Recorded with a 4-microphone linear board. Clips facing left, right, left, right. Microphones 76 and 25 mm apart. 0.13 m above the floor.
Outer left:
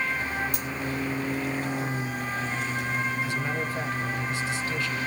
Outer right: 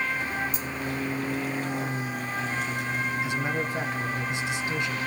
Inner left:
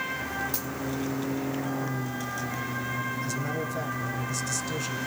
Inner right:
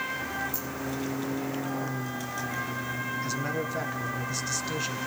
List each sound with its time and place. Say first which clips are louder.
0.5 s a dropped coin: even, inner left 2 dB; 80° left, 1.8 m
3.2 s a man speaking: outer right 1 dB, even; 20° right (ahead or behind), 1.5 m